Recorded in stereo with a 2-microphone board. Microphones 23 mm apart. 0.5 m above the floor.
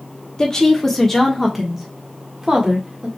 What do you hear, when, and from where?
0.4 s a woman speaking: 25° left (ahead or behind), 1.3 m; by 3.1 s 35° right (ahead or behind), 1.7 m